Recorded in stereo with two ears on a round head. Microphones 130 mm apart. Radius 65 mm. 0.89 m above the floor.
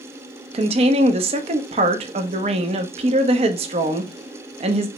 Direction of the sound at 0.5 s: 45° right (ahead or behind).